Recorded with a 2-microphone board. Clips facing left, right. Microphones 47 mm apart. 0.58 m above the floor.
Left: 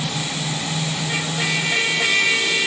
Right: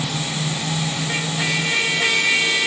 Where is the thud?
No thud in this recording.